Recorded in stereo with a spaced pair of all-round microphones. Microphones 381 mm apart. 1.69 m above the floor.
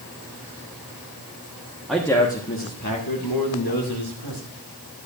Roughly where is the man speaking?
Centre.